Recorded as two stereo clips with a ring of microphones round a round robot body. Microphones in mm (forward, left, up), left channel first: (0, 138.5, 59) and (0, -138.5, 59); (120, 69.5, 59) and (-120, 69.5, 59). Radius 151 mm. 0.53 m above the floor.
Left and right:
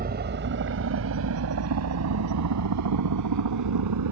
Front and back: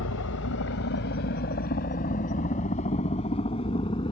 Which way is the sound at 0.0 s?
35° right.